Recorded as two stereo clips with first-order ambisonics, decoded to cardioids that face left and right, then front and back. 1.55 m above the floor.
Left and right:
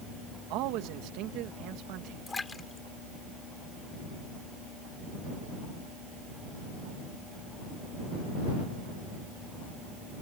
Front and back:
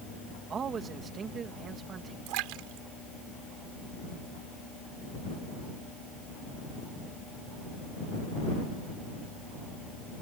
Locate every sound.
0.5 s a man speaking: 115° right
2.3 s a splash: 165° left